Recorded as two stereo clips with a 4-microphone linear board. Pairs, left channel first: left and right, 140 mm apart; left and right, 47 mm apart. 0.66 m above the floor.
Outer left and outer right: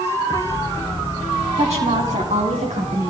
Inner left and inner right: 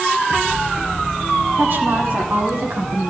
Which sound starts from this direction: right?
A woman speaking, at 1.6 s.